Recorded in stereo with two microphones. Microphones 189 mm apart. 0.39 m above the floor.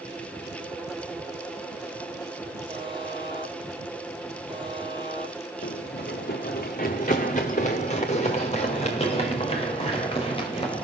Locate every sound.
2.7 s a buzzer: 25° right (ahead or behind), 2.5 m
5.6 s running footsteps: 65° left (ahead or behind), 1.7 m; by 10.8 s 30° left (ahead or behind), 5 m